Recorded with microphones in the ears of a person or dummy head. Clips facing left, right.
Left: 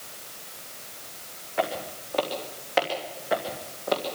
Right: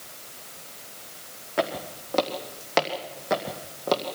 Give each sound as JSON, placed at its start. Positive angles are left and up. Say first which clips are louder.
{"t": 1.6, "sound": "footsteps", "louder": "right 1 dB", "side_deg": -55, "distance_m": 3.5}